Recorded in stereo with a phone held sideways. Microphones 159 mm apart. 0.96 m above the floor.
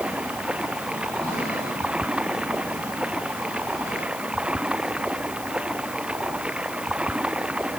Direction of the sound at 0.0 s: 5° right (ahead or behind).